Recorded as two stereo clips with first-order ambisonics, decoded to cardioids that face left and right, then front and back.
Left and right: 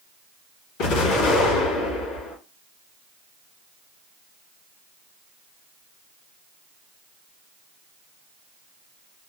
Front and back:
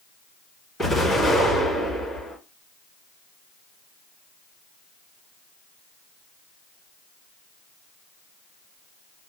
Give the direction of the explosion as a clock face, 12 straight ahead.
9 o'clock.